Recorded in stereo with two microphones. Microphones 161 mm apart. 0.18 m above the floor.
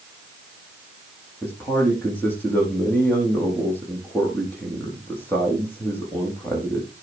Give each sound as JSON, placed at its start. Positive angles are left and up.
{"t": 1.4, "sound": "a man speaking", "side_deg": 10, "distance_m": 7.0}